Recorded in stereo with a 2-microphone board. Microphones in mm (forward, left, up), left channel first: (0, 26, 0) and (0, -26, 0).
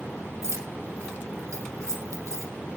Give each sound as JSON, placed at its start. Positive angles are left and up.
{"t": 0.4, "sound": "keys jangling", "side_deg": -70, "distance_m": 3.5}